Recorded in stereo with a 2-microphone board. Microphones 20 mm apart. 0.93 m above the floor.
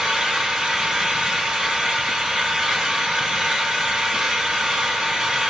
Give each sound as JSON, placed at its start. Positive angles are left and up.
{"t": 0.0, "sound": "an engine running", "side_deg": -40, "distance_m": 1.5}